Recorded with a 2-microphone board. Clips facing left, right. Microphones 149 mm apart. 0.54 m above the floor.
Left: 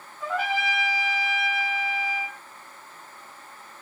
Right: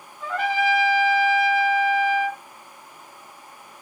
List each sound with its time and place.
0.2 s a trumpet: 5° left (ahead or behind), 1.7 m